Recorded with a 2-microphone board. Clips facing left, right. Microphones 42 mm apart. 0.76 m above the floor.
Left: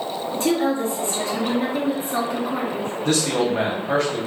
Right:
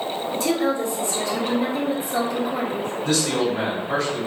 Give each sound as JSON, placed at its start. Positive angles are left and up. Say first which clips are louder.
{"t": 0.3, "sound": "a woman speaking", "louder": "left 2 dB", "side_deg": 40, "distance_m": 1.4}
{"t": 3.0, "sound": "a man speaking", "louder": "left 2 dB", "side_deg": 55, "distance_m": 1.5}